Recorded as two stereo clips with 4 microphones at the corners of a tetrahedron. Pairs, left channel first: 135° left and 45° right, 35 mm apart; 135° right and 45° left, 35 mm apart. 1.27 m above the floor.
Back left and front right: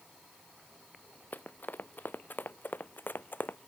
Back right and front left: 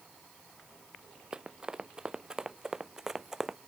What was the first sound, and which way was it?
Running footsteps, 110° left.